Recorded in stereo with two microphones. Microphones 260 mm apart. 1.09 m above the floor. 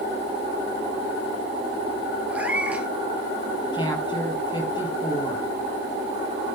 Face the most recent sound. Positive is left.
turn(degrees=15)  # may be behind; listen again after turning